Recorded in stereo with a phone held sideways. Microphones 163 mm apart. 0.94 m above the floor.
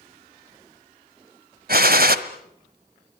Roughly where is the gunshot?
Right.